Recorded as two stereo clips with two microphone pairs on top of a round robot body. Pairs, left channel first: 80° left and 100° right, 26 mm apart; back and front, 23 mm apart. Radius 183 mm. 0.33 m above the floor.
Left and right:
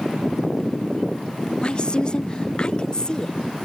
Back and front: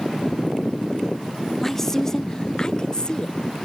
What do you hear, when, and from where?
1.6 s a woman speaking: 105° left; by 3.6 s 135° left